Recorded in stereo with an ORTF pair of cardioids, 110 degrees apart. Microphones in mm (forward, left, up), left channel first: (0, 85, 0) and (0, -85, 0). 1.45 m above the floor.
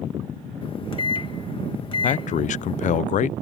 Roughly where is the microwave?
Ahead left.